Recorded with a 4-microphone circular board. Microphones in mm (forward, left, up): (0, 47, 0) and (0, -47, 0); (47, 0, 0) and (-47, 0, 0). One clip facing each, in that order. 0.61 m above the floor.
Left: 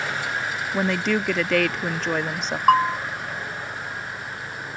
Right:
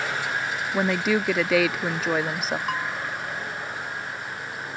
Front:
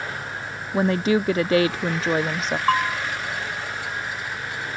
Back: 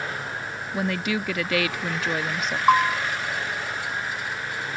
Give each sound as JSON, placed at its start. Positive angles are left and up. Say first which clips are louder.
{"t": 0.7, "sound": "a woman speaking", "louder": "even, front 7 dB", "azimuth_deg": -10}
{"t": 2.7, "sound": "a bell", "louder": "left 11 dB, back 4 dB", "azimuth_deg": 105}